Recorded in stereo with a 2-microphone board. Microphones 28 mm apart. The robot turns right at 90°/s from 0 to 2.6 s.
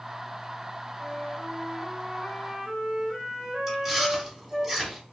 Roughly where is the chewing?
Centre.